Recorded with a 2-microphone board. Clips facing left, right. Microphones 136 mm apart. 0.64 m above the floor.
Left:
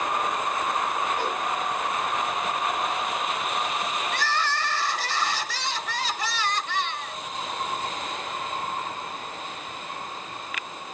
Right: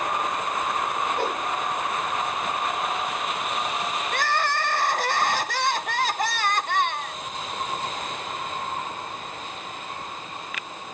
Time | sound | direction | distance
1.2 | a whoosh | 60° right (ahead or behind) | 4 m
4.1 | crying | 55° right (ahead or behind) | 0.6 m